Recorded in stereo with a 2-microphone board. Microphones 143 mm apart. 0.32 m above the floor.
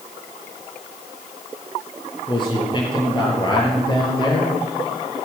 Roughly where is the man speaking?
Left.